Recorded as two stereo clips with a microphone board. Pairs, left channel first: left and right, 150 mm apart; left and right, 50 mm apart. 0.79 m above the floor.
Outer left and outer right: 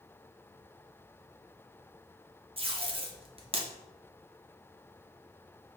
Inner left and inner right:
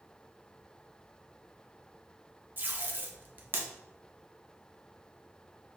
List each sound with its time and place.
2.6 s tape being pulled: 35° right (ahead or behind), 0.5 m